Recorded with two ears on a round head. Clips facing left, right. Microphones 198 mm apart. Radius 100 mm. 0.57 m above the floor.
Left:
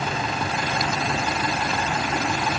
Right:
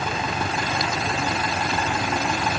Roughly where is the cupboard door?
I don't hear a cupboard door.